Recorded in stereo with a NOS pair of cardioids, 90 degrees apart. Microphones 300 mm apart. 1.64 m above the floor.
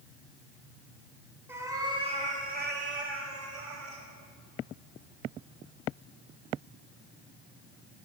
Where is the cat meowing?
10° right, 2.5 m; by 4.0 s 70° right, 2.5 m.